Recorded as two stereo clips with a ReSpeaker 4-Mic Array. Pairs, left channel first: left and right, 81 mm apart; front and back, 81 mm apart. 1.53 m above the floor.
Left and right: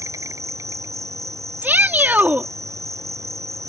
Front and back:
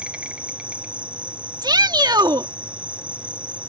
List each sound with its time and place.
0.0 s an insect: 110° right
1.6 s a shout: 155° right